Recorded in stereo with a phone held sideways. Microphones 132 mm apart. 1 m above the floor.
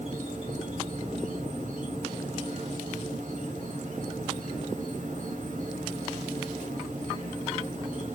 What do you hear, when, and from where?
0.0 s an insect: 65° right (ahead or behind), 1.8 m